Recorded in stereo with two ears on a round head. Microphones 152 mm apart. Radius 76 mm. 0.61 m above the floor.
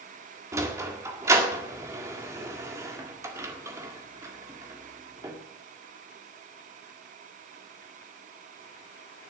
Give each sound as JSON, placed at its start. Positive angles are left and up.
{"t": 0.5, "sound": "a sliding door", "side_deg": -15, "distance_m": 1.7}